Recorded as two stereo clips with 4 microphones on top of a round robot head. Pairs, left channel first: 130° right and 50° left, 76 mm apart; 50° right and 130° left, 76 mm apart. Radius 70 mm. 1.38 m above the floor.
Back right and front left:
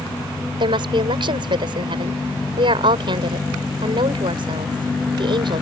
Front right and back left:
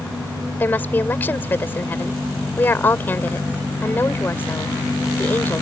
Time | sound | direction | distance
0.6 | a woman speaking | 20° left | ?